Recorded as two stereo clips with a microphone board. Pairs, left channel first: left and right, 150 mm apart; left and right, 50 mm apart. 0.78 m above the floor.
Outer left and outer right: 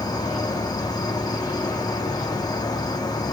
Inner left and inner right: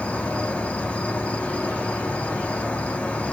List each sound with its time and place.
0.0 s an insect: 25° left (ahead or behind), 0.8 m